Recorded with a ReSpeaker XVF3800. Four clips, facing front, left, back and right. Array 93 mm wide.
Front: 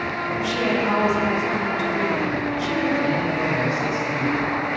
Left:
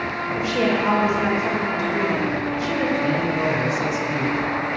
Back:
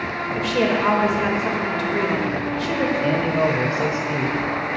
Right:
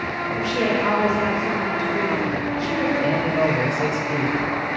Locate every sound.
0.3 s a woman speaking: 175° left, 2 m
3.0 s a man speaking: 145° right, 1.7 m